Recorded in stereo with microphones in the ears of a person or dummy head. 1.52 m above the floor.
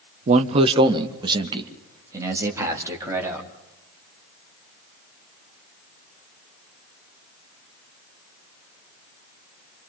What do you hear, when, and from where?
0.3 s a man speaking: 45° right (ahead or behind), 0.8 m; by 3.5 s 15° right (ahead or behind), 3.5 m